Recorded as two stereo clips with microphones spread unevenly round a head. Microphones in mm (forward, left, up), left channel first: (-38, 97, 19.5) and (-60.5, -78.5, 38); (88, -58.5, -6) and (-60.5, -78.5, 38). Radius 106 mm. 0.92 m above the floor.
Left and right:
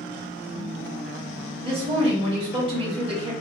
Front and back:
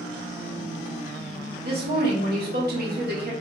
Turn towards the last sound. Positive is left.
turn(degrees=-155)